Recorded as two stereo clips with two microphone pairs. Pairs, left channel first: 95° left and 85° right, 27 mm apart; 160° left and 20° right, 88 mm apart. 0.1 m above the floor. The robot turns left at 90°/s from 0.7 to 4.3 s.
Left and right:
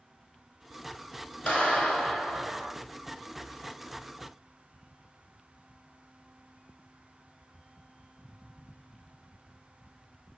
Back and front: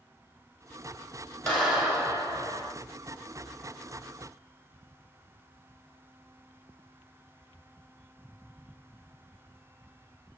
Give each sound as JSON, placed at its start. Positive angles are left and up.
{"t": 1.5, "sound": "a clap", "azimuth_deg": 85, "distance_m": 2.0}